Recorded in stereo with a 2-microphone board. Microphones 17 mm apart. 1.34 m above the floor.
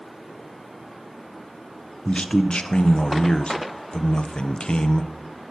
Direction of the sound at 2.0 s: 75° left (ahead or behind).